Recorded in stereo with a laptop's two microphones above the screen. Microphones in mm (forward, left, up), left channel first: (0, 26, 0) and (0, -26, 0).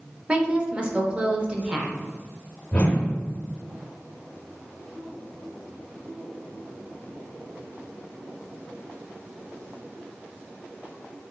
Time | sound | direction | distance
0.3 | a woman speaking | 20° right (ahead or behind) | 0.7 m
2.7 | a whoosh | 25° left (ahead or behind) | 0.5 m